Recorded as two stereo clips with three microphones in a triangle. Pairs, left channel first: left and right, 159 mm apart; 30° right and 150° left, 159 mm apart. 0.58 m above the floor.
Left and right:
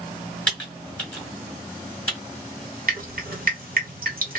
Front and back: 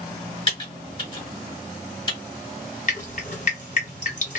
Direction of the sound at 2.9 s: 65° right.